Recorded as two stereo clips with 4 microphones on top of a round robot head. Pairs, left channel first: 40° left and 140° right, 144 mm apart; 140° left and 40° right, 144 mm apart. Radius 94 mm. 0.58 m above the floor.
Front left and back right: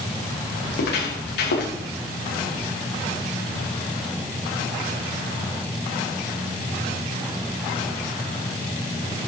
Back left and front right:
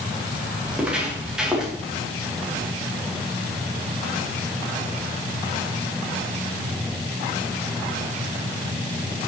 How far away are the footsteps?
About 6.5 m.